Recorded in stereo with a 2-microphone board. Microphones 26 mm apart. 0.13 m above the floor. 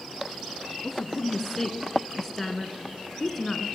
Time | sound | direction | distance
0.8 | a woman speaking | 10° left (ahead or behind) | 1.5 m